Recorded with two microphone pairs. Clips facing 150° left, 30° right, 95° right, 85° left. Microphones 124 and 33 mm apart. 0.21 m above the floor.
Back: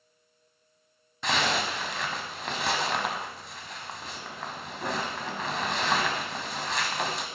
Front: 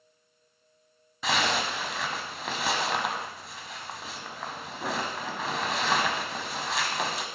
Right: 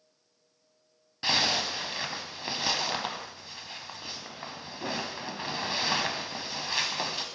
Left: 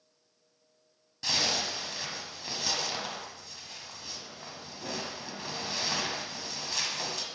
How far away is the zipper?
About 1.0 m.